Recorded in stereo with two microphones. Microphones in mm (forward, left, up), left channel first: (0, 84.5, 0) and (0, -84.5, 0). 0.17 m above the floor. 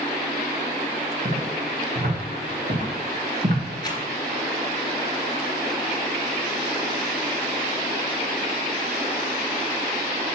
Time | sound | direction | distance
1.2 | footsteps | 50° right (ahead or behind) | 5 m
3.8 | a rattle | 25° left (ahead or behind) | 2.5 m